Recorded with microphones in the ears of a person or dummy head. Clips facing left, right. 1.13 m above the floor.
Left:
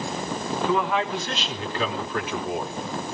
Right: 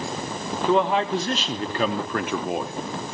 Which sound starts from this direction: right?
A man speaking, at 0.7 s.